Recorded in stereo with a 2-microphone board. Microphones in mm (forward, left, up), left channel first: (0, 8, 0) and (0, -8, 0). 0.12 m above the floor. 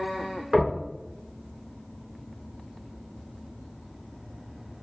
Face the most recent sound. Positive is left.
turn(degrees=-25)  # may be behind; listen again after turning